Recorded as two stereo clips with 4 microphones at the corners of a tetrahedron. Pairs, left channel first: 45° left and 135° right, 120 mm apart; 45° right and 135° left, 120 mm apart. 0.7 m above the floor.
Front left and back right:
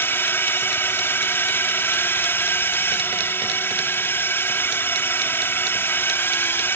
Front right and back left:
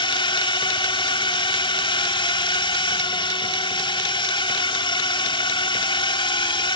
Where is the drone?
20° right.